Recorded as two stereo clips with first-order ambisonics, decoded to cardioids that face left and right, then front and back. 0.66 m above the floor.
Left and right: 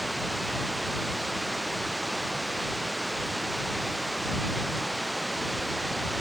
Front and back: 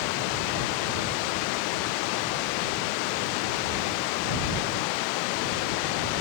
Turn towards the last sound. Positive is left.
turn(degrees=-5)